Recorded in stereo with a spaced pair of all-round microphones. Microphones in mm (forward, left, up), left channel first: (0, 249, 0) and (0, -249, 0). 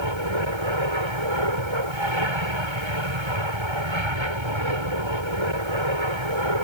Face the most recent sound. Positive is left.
turn(degrees=-70)  # may be behind; listen again after turning